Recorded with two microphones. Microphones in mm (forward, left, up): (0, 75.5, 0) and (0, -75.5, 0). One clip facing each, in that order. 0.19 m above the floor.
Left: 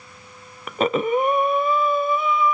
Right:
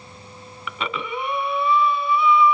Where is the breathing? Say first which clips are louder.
Left 9 dB; 45° left (ahead or behind), 0.6 m.